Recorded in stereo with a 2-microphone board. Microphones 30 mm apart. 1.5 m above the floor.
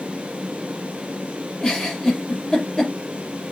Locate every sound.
1.6 s a giggle: 20° left (ahead or behind), 6 m